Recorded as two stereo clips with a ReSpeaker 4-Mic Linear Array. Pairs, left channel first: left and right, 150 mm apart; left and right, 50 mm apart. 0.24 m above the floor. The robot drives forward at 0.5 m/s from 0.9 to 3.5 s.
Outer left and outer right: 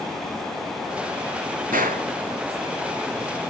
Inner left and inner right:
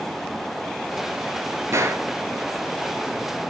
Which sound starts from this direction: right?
A gunshot, at 1.7 s.